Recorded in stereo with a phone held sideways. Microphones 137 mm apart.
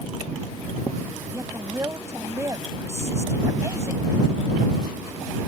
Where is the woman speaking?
20° right (ahead or behind).